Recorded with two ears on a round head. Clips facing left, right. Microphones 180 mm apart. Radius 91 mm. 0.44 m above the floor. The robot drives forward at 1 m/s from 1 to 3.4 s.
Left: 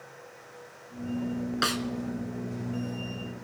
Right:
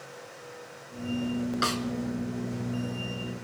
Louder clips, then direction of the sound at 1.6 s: Even; 10° left (ahead or behind).